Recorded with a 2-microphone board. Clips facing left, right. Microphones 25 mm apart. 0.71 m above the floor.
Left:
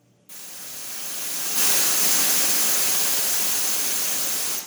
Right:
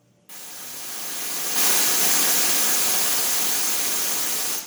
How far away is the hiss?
About 0.9 m.